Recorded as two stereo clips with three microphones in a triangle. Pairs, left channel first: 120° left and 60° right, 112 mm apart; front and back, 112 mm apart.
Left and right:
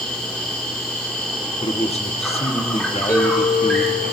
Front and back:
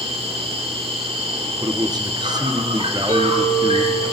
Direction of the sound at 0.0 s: 160° right.